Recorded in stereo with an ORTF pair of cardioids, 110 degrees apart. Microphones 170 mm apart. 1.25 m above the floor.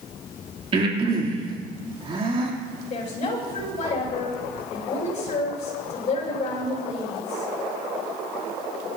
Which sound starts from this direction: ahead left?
A woman speaking, at 2.9 s.